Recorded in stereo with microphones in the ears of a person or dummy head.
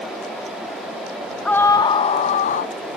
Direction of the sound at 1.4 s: 10° left (ahead or behind).